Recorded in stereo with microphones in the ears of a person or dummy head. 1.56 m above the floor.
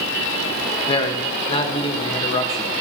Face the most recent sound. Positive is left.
turn(degrees=35)  # may be behind; listen again after turning